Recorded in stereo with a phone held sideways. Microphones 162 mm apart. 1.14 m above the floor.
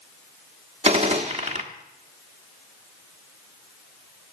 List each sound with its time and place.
0.8 s a gunshot: 40° right (ahead or behind), 1.3 m